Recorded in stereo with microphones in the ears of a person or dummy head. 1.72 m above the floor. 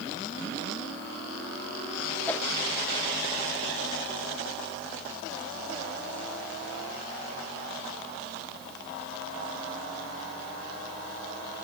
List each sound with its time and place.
2.3 s a whoosh: 5° left (ahead or behind), 2.0 m